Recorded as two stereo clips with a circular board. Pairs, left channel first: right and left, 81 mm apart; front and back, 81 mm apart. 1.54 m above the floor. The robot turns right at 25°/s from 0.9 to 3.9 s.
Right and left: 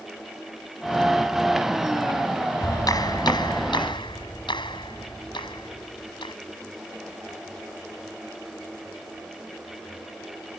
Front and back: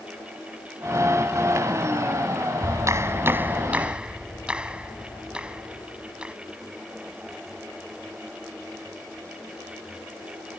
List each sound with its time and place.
2.6 s a clap: 135° right; by 6.3 s 105° right